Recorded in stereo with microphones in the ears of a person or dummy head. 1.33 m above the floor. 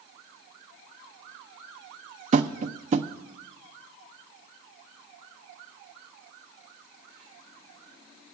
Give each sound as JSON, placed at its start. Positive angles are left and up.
{"t": 2.3, "sound": "tapping", "side_deg": -35, "distance_m": 0.5}